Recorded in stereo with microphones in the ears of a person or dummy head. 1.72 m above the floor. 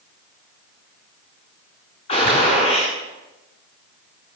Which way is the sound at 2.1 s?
35° left (ahead or behind).